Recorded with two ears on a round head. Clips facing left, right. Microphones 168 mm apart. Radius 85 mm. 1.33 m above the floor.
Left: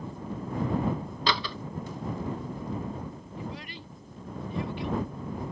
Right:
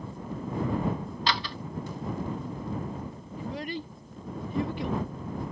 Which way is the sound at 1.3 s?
80° left.